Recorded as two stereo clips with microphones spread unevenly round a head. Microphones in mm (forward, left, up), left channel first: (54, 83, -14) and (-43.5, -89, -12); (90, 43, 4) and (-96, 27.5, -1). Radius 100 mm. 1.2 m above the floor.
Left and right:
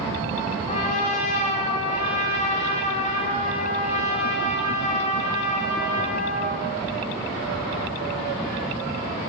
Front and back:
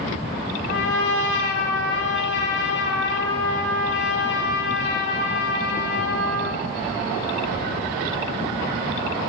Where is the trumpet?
10° left, 1.7 m.